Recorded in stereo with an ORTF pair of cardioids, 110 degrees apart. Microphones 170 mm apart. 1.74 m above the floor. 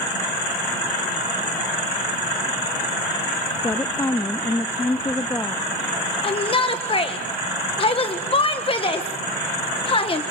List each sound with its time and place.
3.6 s a woman speaking: 15° left, 0.5 m
6.2 s a shout: 35° left, 1.8 m